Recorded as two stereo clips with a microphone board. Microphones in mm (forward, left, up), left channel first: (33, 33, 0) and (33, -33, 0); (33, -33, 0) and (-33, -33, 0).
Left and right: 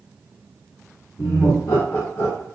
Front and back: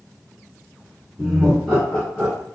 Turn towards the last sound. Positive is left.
turn(degrees=60)